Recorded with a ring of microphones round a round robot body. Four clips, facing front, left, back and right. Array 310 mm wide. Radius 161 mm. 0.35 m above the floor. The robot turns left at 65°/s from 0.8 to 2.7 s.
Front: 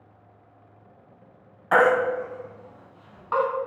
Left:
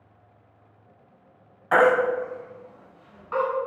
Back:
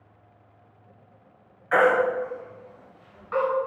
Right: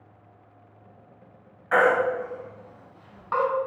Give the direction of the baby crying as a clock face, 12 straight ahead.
11 o'clock.